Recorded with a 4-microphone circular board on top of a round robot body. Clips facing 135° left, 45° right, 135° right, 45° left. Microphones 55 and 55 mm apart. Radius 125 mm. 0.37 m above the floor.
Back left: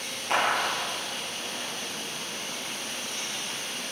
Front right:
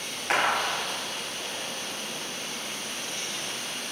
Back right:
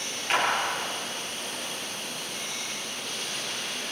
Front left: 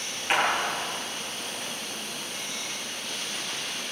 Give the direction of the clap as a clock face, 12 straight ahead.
1 o'clock.